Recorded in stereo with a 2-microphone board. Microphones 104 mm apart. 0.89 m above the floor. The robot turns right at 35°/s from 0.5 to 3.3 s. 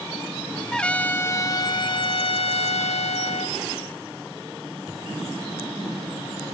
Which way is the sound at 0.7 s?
5° left.